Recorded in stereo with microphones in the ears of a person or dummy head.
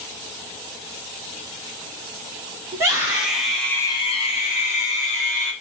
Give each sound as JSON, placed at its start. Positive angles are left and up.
{"t": 2.7, "sound": "a scream", "side_deg": -15, "distance_m": 0.9}